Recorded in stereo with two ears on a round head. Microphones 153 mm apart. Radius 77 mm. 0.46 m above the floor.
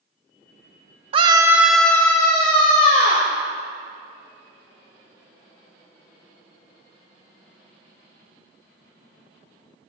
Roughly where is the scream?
Right.